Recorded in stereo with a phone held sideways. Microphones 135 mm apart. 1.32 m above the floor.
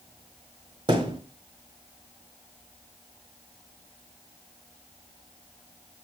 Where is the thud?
35° right (ahead or behind), 1.4 m.